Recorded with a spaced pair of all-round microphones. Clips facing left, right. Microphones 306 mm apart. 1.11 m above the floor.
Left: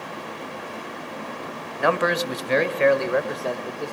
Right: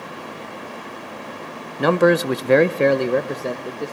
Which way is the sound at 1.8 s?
45° right (ahead or behind).